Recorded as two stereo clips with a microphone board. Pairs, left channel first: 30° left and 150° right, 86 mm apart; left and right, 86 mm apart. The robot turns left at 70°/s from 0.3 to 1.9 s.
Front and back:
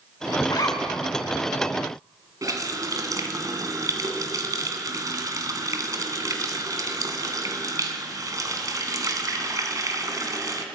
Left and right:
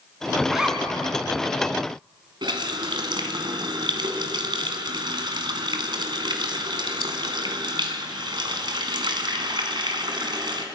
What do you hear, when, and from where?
0.5 s a zipper: 5° left, 3 m; by 1.2 s 45° right, 3 m
2.4 s a running tap: 105° right, 2.0 m